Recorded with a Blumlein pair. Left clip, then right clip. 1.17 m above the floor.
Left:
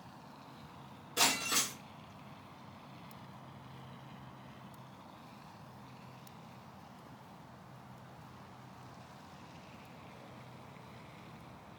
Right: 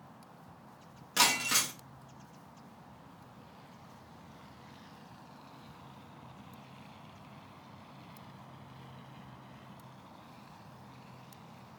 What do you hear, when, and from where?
1.2 s breaking glass: 50° right, 0.8 m